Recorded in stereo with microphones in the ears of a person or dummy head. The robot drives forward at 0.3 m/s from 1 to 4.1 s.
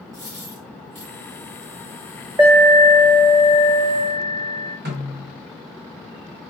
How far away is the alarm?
About 0.6 m.